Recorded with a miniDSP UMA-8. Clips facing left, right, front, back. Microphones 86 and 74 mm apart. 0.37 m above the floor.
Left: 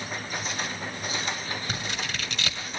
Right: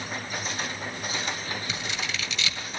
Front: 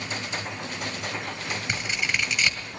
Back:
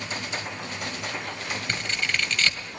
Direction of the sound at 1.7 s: 75° left.